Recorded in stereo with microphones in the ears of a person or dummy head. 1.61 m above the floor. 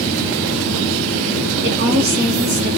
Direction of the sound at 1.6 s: 65° right (ahead or behind).